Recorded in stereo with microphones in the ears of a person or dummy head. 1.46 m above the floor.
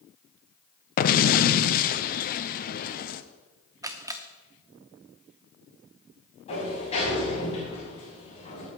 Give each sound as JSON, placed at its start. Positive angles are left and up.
{"t": 1.0, "sound": "an explosion", "side_deg": 40, "distance_m": 0.6}
{"t": 3.8, "sound": "a camera shutter", "side_deg": -20, "distance_m": 0.9}
{"t": 6.5, "sound": "a sliding door", "side_deg": 35, "distance_m": 6.5}